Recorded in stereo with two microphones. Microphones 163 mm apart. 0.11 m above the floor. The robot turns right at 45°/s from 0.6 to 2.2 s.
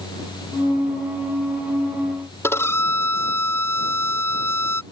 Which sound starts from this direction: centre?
A violin, at 2.4 s.